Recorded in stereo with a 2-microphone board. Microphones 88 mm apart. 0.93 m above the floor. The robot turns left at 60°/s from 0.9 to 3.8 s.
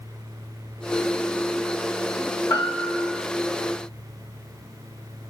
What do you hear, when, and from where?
2.5 s a piano: 40° left, 3 m; by 3.2 s straight ahead, 3 m